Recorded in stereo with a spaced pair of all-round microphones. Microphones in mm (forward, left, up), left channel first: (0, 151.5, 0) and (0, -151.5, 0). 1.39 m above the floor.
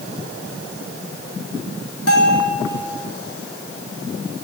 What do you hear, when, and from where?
2.1 s a bell: 55° left (ahead or behind), 5.5 m